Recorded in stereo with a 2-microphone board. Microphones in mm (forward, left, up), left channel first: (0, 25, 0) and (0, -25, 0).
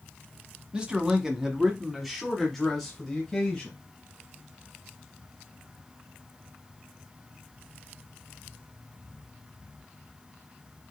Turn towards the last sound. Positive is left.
turn(degrees=15)  # may be behind; listen again after turning